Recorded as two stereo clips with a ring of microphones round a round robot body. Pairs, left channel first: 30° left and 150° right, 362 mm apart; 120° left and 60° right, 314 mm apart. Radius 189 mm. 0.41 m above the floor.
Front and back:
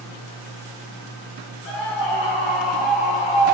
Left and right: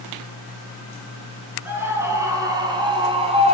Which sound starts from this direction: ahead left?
A scream, at 1.6 s.